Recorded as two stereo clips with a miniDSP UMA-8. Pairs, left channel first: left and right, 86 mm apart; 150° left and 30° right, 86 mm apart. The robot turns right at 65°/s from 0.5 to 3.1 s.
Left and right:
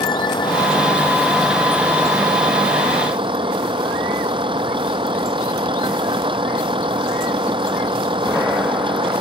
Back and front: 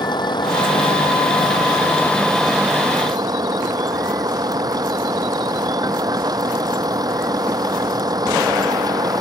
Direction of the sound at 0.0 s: 115° left.